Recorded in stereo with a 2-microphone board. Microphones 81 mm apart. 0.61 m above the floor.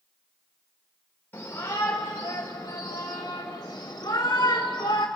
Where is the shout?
30° left (ahead or behind), 2 m; by 5.1 s 55° left (ahead or behind), 1.5 m.